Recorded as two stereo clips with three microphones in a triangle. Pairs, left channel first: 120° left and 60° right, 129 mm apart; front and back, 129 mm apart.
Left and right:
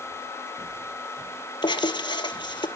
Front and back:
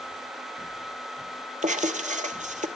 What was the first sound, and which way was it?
Writing, 170° left.